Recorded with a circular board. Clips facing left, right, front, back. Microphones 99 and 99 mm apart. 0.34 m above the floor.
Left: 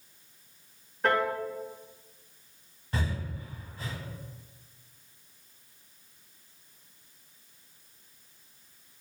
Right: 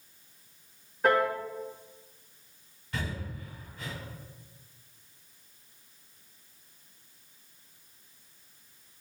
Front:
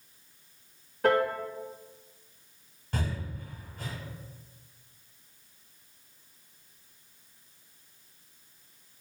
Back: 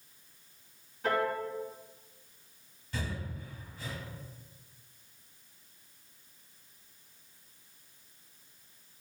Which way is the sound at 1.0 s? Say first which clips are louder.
Right 2 dB, front 5 dB; 5° right.